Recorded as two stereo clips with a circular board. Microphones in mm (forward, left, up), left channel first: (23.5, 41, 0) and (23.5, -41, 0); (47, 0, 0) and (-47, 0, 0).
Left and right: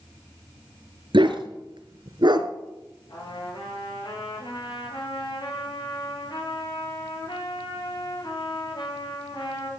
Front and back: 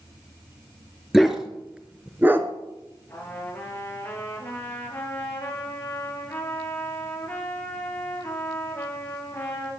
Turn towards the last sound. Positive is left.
turn(degrees=70)